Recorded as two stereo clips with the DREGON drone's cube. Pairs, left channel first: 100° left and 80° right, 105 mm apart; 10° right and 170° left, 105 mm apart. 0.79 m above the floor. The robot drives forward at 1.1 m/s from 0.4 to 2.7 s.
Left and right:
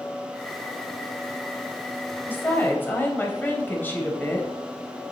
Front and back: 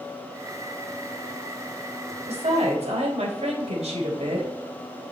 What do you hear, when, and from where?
2.3 s a woman speaking: 170° left, 3 m